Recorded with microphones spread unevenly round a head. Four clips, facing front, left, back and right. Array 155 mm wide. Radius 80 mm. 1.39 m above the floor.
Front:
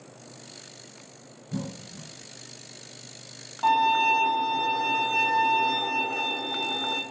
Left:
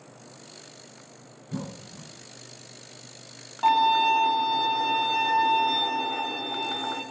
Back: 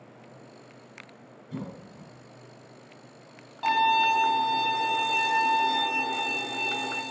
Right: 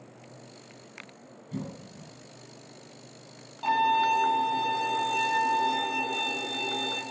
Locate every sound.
1.5 s a cough: 90° left, 7 m
3.6 s a violin: 85° left, 4.5 m